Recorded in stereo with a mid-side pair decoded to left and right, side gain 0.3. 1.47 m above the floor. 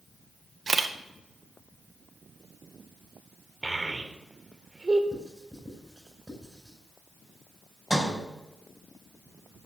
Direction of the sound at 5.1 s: 10° right.